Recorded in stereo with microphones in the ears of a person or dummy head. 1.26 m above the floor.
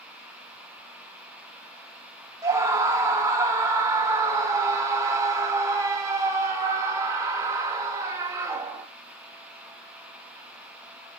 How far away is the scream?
About 0.7 m.